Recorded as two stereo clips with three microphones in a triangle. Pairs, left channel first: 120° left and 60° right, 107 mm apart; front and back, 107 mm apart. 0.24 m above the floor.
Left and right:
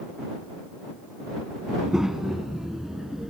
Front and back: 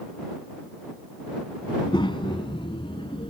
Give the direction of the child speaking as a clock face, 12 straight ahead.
11 o'clock.